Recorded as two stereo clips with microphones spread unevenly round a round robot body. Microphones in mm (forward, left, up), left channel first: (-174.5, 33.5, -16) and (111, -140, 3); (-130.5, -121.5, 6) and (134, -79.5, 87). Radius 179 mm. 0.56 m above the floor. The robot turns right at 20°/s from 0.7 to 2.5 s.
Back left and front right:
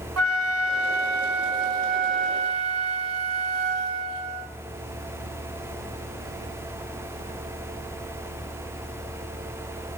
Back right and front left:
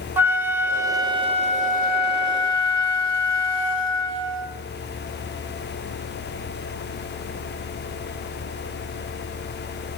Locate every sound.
0.2 s a flute: 80° right, 1.1 m; by 4.5 s 45° right, 1.1 m